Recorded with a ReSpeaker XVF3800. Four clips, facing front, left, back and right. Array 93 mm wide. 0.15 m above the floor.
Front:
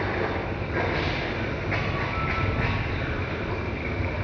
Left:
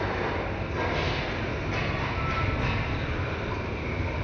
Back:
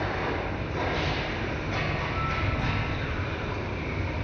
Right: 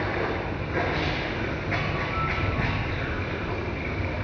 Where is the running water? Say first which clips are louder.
Right 1 dB, front 2 dB; 45° right, 1.2 m.